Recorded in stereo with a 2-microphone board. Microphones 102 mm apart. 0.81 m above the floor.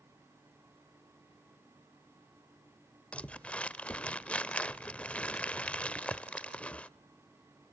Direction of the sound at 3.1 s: 10° left (ahead or behind).